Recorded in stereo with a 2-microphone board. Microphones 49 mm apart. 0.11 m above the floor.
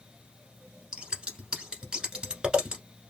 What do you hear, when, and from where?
0.9 s scissors: 15° right (ahead or behind), 1.1 m